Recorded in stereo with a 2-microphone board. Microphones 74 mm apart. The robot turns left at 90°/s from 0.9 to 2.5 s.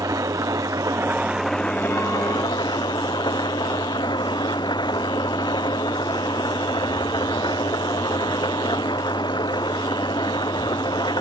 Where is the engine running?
130° right; by 11.2 s 85° left.